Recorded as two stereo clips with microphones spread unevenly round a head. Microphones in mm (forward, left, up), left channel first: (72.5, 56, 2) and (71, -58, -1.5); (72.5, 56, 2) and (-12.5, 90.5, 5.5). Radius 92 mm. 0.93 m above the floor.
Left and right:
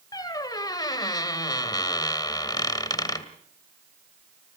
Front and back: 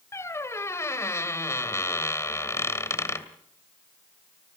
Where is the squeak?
35° left, 2 m.